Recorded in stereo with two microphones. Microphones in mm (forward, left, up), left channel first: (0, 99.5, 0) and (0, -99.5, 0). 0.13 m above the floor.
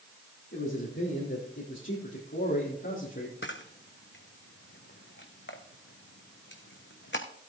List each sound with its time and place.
0.5 s a man speaking: 75° left (ahead or behind), 4.5 m; by 3.3 s 70° left (ahead or behind), 4 m
3.4 s a camera shutter: 65° left (ahead or behind), 1.6 m